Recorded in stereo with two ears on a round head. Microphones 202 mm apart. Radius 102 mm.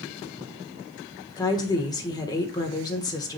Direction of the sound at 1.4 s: 20° left (ahead or behind).